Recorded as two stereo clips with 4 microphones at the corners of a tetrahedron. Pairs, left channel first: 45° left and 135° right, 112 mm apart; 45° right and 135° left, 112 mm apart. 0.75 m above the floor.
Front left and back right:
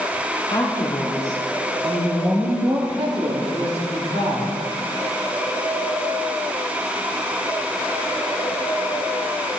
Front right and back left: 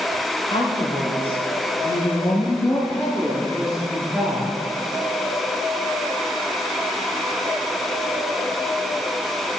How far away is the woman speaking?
About 2.5 m.